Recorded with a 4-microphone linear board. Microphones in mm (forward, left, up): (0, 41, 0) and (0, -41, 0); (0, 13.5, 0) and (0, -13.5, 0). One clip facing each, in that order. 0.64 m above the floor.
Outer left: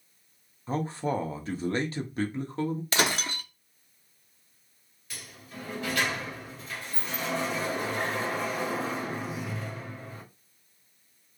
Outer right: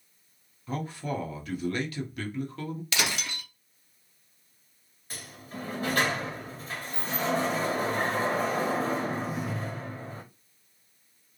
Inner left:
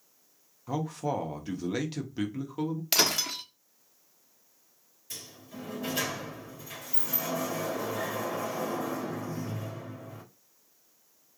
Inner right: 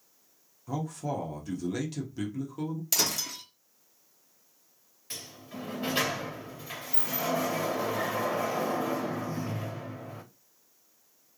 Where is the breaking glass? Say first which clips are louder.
Outer left 2 dB, inner left 4 dB; 40° left (ahead or behind), 0.8 m.